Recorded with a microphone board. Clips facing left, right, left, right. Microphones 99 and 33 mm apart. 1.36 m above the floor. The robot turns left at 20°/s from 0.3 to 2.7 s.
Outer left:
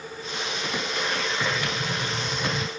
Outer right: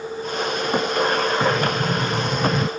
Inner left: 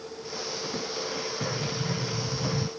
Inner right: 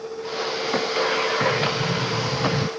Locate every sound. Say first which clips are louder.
1.4 s a sliding door: outer right 8 dB, inner right 10 dB; 50° right (ahead or behind); by 2.7 s 75° right (ahead or behind)